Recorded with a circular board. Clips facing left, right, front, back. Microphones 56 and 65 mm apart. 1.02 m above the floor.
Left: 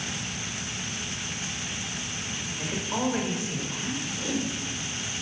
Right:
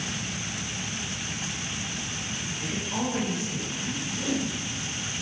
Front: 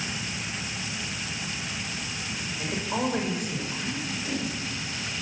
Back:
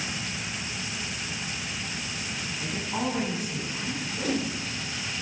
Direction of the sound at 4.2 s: Straight behind.